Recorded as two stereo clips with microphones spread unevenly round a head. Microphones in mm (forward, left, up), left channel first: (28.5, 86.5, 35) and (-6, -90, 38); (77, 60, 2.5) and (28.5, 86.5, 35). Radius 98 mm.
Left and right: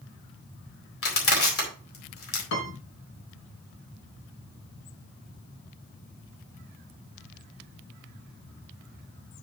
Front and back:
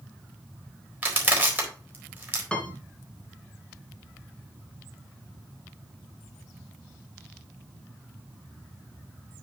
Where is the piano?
50° left, 3.5 m.